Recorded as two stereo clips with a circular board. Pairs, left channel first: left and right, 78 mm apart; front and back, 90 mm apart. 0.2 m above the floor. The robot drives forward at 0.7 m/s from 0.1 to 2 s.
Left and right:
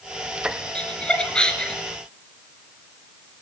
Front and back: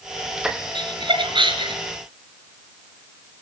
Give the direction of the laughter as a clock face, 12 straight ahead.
7 o'clock.